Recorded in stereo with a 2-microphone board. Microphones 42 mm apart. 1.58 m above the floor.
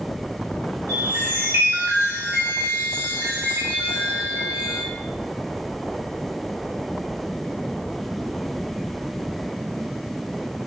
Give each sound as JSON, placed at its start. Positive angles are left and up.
{"t": 0.9, "sound": "a chime", "side_deg": -80, "distance_m": 1.7}